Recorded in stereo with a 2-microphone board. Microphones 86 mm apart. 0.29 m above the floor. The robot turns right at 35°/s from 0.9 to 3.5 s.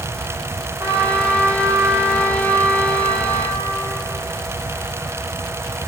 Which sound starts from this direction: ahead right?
A trumpet, at 0.8 s.